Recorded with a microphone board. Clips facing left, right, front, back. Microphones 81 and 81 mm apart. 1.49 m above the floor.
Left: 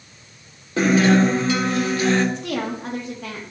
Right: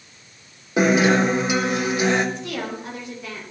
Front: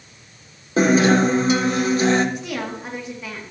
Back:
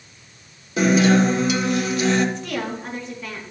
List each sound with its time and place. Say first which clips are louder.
0.8 s a guitar: left 1 dB, front 1 dB; 25° right, 1.3 m
2.4 s a woman speaking: left 3 dB, back 1 dB; 80° left, 3 m